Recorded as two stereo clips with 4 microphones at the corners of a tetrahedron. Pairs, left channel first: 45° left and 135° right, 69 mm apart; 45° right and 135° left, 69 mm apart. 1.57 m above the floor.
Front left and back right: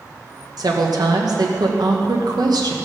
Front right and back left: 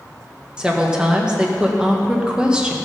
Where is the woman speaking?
150° right, 1.6 m.